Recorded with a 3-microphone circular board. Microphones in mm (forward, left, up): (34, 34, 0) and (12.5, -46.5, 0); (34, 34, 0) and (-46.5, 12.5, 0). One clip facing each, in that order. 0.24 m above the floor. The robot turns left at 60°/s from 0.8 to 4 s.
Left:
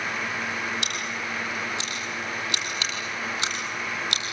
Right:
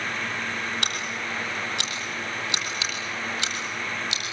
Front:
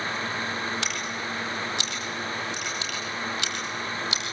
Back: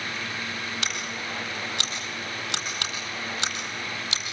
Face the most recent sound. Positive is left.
turn(degrees=95)